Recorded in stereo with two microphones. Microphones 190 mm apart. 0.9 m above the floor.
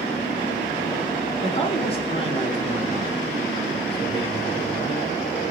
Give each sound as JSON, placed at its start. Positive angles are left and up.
{"t": 1.4, "sound": "a man speaking", "side_deg": 30, "distance_m": 1.7}